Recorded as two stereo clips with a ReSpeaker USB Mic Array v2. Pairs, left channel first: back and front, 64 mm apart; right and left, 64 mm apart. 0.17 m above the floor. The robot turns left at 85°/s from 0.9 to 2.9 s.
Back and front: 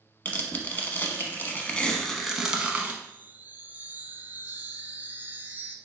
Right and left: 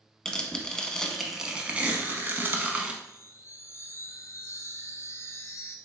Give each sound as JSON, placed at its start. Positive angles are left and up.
{"t": 0.2, "sound": "tearing paper", "azimuth_deg": -155, "distance_m": 0.7}
{"t": 3.0, "sound": "a chime", "azimuth_deg": -55, "distance_m": 0.5}